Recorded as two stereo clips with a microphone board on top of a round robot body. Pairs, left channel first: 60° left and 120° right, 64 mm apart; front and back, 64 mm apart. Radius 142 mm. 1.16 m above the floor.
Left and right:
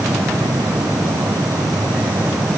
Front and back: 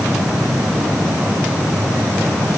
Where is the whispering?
I don't hear whispering.